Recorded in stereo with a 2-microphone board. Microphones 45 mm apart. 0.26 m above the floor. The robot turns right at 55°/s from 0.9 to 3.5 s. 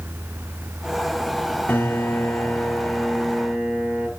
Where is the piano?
100° left, 2.5 m; by 4.1 s 160° right, 2.5 m.